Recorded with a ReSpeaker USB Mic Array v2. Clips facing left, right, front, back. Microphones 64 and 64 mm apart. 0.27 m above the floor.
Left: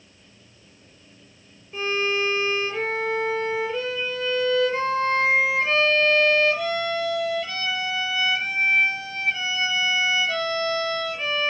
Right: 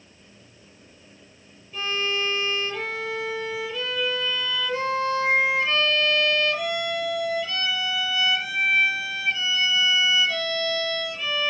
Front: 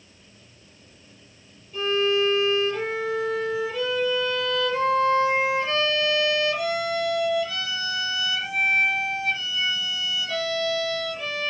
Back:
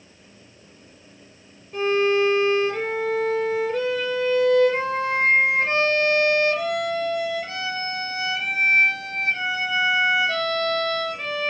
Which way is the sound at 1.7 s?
145° left.